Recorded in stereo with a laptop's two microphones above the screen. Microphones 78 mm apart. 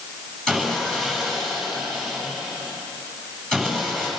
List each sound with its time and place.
0.5 s sawing: 5° left (ahead or behind), 9.5 m